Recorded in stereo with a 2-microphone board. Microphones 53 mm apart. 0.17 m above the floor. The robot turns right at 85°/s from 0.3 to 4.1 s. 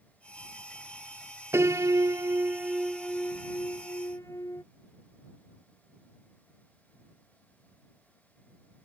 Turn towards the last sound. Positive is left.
turn(degrees=100)